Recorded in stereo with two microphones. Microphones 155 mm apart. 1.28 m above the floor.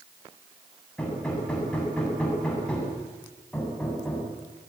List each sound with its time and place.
1.0 s hammering: 5° left (ahead or behind), 7.5 m